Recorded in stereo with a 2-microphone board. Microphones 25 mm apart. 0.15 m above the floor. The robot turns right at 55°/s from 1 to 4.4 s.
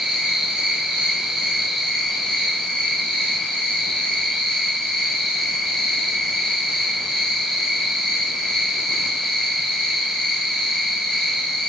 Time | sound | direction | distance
0.0 | an insect | 50° right | 3 m